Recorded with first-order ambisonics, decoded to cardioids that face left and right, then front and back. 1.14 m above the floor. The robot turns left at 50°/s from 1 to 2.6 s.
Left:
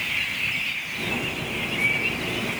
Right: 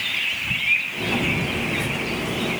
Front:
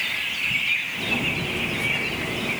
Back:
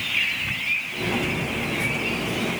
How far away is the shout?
I don't hear a shout.